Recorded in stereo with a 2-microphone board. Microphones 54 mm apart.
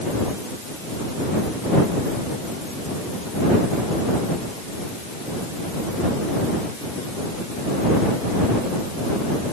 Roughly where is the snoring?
I don't hear snoring.